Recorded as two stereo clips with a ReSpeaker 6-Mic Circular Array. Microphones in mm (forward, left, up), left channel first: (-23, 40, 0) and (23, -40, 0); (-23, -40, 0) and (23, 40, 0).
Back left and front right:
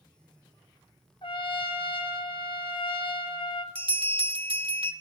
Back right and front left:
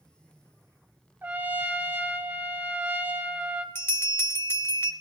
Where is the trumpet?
130° left, 0.7 m.